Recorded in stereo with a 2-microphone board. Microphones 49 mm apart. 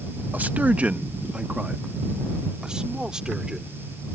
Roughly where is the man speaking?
Right.